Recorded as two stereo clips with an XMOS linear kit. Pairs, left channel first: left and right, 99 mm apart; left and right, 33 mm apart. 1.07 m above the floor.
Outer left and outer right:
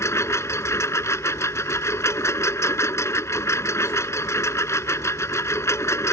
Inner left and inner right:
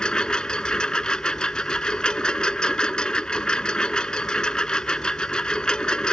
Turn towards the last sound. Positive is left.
turn(degrees=30)  # may be behind; listen again after turning